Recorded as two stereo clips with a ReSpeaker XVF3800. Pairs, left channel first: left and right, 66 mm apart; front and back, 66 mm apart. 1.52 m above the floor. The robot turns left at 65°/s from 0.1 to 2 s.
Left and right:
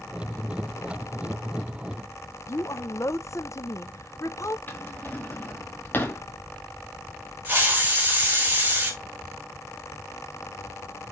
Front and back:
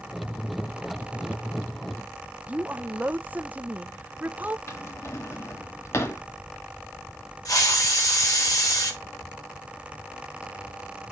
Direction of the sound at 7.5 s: 30° right.